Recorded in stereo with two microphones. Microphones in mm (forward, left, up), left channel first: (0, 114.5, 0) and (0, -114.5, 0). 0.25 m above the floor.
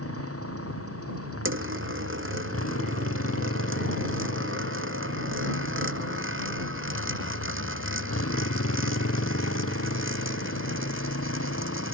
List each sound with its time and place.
0.0 s a motorcycle: 80° left; by 11.9 s 75° left (ahead or behind)
1.4 s a dropped coin: 60° right (ahead or behind)